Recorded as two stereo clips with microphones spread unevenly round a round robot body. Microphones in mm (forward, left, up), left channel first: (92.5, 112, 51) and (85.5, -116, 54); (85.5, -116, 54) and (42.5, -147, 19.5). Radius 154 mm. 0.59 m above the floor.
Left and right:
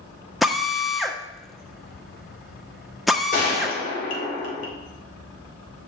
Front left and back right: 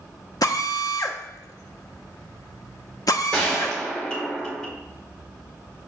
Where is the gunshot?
140° left, 1.9 m.